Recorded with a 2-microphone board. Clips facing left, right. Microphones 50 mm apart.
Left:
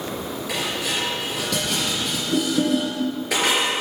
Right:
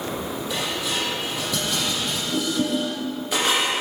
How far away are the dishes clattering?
About 4.5 m.